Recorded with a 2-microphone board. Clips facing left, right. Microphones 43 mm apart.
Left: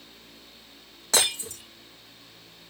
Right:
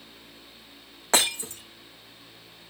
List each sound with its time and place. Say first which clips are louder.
1.1 s breaking glass: right 1 dB; 35° right (ahead or behind), 6.5 m